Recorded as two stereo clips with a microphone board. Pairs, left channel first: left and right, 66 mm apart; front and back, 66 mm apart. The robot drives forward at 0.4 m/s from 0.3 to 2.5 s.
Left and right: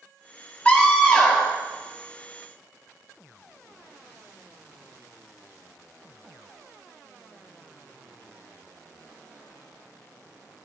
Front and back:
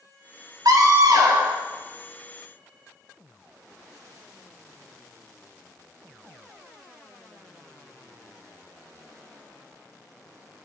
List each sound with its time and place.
0.7 s a scream: 160° left, 4.5 m